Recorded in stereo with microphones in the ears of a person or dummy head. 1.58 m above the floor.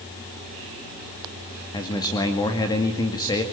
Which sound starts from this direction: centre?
A man speaking, at 1.7 s.